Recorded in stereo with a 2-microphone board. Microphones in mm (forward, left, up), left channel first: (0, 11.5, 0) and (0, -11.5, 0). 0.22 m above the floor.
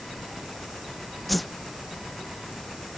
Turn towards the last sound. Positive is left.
turn(degrees=0)  # may be behind; listen again after turning